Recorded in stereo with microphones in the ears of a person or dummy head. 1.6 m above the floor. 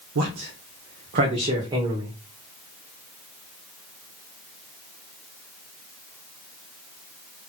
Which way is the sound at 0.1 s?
80° right.